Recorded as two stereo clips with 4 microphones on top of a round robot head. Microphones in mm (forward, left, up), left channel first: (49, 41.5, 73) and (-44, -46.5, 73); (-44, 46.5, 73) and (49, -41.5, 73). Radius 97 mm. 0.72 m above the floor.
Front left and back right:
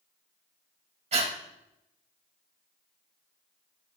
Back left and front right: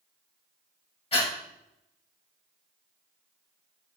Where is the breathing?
175° right, 2.5 m.